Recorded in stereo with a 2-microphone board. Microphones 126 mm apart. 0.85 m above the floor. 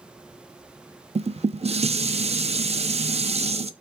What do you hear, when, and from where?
1.1 s dishes clattering: 55° right (ahead or behind), 0.6 m